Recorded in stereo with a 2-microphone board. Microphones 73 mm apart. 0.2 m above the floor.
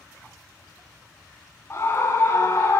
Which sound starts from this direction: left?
A scream, at 1.7 s.